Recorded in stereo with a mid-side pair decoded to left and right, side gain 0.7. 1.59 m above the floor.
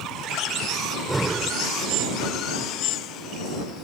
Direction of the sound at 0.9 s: 10° right.